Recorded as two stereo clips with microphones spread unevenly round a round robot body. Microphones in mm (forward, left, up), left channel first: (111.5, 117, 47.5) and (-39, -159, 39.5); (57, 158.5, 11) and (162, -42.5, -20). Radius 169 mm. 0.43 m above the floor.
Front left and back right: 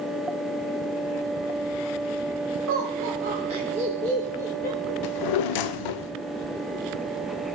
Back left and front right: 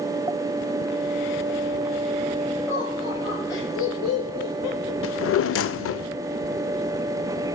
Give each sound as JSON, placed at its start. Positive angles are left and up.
{"t": 2.7, "sound": "laughter", "azimuth_deg": -150, "distance_m": 1.5}
{"t": 5.0, "sound": "a drawer", "azimuth_deg": 80, "distance_m": 0.6}